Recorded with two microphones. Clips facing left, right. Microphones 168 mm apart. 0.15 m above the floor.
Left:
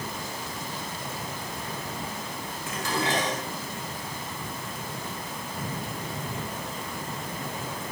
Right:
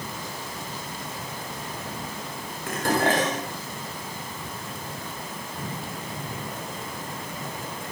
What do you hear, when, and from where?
2.7 s dishes clattering: 55° right (ahead or behind), 9 m